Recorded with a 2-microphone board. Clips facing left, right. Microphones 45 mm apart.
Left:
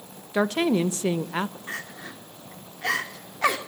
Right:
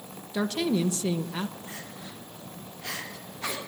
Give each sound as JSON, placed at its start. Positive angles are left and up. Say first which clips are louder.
{"t": 0.3, "sound": "a woman speaking", "louder": "left 4 dB", "side_deg": 35, "distance_m": 1.2}
{"t": 1.7, "sound": "crying", "louder": "left 6 dB", "side_deg": 75, "distance_m": 2.5}